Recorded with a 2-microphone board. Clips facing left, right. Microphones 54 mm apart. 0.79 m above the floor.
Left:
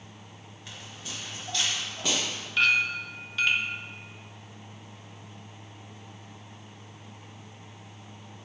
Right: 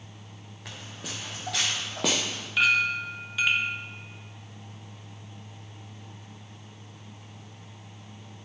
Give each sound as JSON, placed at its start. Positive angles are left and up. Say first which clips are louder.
{"t": 0.7, "sound": "footsteps", "louder": "right 2 dB", "side_deg": -70, "distance_m": 3.5}
{"t": 2.6, "sound": "a clink", "louder": "right 1 dB", "side_deg": -5, "distance_m": 1.1}